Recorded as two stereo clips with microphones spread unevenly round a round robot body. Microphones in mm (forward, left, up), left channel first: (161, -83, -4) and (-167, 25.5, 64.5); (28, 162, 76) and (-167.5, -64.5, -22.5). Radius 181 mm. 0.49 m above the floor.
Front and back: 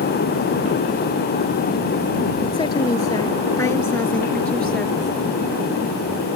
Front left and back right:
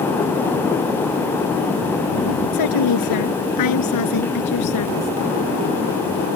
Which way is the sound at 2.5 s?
60° left.